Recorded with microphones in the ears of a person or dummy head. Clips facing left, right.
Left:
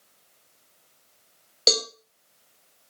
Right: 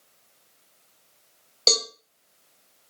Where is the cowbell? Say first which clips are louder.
Left 2 dB; 15° left (ahead or behind), 0.8 m.